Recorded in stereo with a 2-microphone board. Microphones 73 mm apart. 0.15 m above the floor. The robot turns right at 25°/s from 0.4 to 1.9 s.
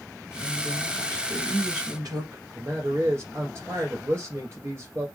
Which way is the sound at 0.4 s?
125° right.